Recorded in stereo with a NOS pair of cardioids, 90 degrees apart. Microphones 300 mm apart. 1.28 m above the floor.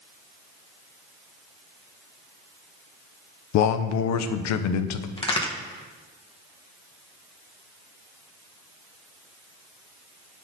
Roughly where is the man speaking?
Ahead left.